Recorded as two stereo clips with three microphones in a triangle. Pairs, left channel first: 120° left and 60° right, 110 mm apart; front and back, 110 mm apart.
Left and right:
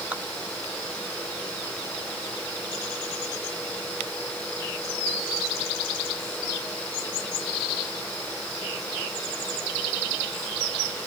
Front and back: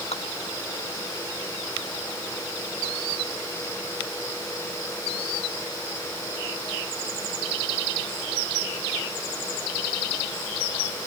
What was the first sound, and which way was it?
Dripping, 15° left.